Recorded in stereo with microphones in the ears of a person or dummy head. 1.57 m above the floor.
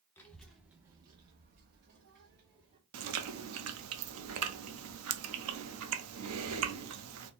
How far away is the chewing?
About 0.7 m.